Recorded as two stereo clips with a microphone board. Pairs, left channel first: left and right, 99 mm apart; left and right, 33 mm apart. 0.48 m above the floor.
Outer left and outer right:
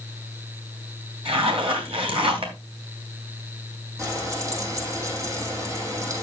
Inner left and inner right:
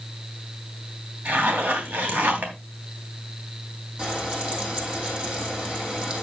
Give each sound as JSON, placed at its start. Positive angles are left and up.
{"t": 1.2, "sound": "a zipper", "side_deg": -70, "distance_m": 3.0}
{"t": 4.0, "sound": "frying", "side_deg": -30, "distance_m": 3.5}